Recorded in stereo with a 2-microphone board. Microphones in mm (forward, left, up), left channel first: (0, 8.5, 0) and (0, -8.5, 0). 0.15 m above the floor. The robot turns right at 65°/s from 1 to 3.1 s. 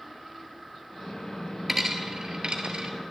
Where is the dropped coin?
20° right (ahead or behind), 1.3 m; by 3.1 s 55° right (ahead or behind), 1.3 m.